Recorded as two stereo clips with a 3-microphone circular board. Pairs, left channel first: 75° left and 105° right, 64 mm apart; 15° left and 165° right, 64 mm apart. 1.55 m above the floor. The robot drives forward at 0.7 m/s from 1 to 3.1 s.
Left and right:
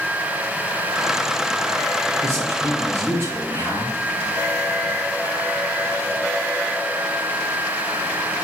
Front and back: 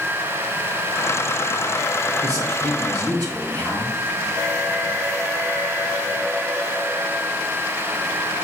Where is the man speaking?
150° right, 1.5 m; by 3.9 s 160° right, 2 m.